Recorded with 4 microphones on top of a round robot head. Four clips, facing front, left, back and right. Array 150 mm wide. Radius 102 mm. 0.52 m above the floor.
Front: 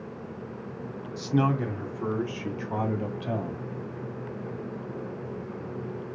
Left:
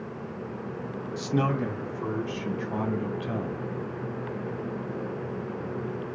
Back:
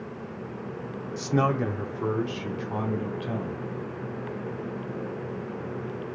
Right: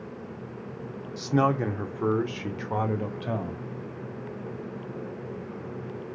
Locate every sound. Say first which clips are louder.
1.2 s a man speaking: right 3 dB, back 1 dB; 145° right, 1.1 m; by 3.6 s 80° right, 2 m